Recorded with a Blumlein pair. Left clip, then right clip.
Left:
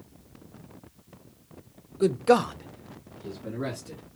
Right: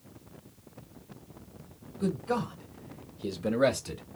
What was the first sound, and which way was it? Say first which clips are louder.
A man speaking: left 10 dB; 65° left.